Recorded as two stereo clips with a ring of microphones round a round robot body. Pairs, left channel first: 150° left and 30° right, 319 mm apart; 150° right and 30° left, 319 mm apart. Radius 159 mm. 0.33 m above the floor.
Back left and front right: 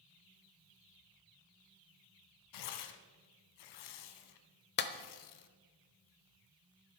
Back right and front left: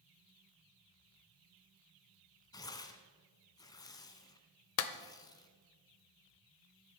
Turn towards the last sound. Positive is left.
turn(degrees=-165)